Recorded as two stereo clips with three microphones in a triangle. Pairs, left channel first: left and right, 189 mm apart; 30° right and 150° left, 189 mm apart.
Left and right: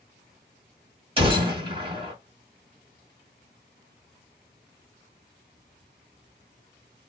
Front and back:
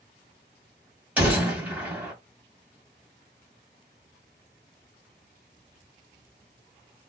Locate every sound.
1.2 s a gunshot: 130° right, 1.4 m